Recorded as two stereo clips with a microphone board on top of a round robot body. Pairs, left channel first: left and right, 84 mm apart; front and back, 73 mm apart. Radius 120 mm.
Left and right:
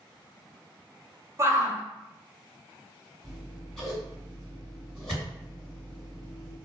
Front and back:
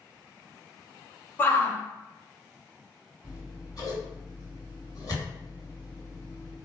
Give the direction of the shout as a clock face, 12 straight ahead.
2 o'clock.